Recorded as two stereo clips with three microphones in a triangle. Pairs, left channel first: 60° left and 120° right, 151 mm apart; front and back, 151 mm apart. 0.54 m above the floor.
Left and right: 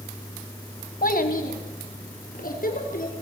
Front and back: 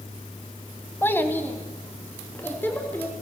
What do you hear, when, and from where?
1.0 s a child speaking: 75° left, 1.9 m